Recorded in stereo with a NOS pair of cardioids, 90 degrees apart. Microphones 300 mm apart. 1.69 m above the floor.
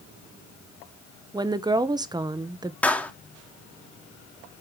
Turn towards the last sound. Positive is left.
turn(degrees=5)